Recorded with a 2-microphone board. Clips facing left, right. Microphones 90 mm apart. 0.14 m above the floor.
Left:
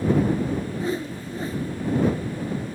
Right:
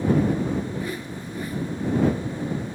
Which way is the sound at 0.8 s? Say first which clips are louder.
Left 4 dB; 30° left (ahead or behind).